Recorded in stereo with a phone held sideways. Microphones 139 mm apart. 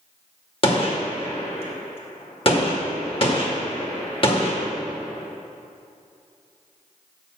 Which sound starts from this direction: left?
A gunshot, at 0.6 s.